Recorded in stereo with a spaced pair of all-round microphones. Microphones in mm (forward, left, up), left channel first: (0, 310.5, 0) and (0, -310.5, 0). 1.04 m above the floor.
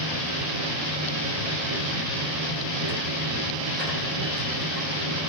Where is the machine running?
75° right (ahead or behind), 2 m.